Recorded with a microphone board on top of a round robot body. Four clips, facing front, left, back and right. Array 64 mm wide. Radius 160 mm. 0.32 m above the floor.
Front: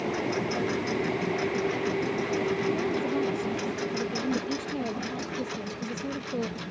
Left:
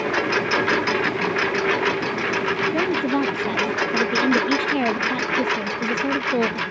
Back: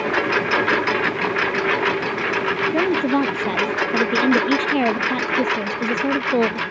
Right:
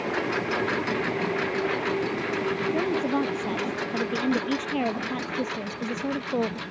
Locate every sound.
0.0 s a lawn mower: 160° left; by 6.7 s 155° left
2.7 s a woman speaking: 175° left